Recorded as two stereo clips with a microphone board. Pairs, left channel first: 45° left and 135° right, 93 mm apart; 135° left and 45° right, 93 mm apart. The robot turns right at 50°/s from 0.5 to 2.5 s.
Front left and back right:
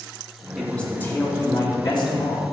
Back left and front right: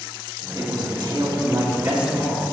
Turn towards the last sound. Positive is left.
turn(degrees=55)